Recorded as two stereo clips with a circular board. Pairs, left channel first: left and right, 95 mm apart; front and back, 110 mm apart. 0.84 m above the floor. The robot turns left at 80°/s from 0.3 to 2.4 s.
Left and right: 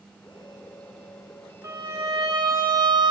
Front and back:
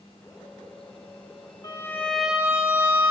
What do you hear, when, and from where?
1.6 s a violin: 45° right, 1.1 m; by 3.1 s 105° right, 1.1 m